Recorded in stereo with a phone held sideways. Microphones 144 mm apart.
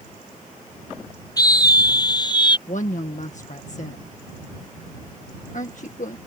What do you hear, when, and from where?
1.4 s a scream: 25° left (ahead or behind); by 2.6 s 30° left (ahead or behind)
2.7 s a woman speaking: 60° left (ahead or behind)